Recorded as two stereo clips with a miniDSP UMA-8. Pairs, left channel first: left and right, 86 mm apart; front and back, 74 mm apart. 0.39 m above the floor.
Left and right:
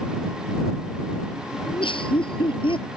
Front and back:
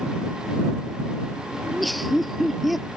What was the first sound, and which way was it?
Laughter, 90° left.